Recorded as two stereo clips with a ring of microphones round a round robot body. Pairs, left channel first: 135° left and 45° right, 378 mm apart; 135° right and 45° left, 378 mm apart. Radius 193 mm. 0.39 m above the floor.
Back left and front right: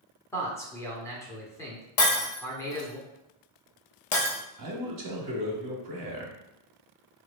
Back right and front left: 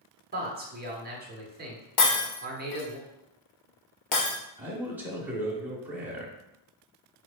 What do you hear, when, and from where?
0.3 s a man speaking: 60° left, 1.2 m
2.0 s breaking glass: 170° right, 1.3 m
4.6 s a man speaking: 40° right, 1.3 m